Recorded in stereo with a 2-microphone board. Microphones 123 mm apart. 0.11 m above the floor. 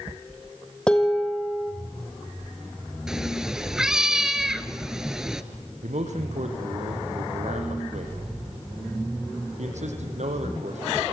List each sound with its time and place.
0.9 s dishes clattering: 5° left (ahead or behind), 2.5 m
3.1 s a cat meowing: 5° right (ahead or behind), 1.1 m
5.8 s a man speaking: 70° right (ahead or behind), 4 m